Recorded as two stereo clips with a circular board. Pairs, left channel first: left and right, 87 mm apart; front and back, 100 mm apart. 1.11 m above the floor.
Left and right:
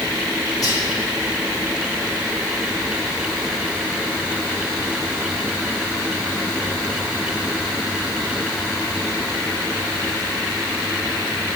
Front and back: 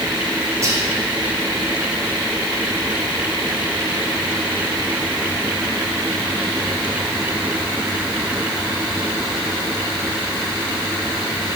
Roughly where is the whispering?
Behind left.